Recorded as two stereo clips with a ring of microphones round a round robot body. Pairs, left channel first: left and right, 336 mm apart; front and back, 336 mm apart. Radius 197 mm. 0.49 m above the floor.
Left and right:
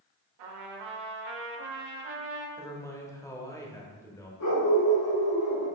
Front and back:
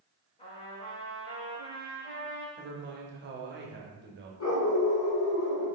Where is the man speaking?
165° left, 0.9 m.